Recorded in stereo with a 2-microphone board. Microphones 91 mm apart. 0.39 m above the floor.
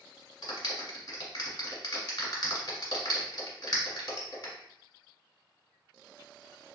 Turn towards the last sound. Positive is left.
turn(degrees=50)  # may be behind; listen again after turning